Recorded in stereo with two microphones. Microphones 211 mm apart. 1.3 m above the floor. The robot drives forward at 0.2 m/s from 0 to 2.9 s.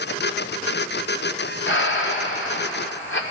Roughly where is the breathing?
Left.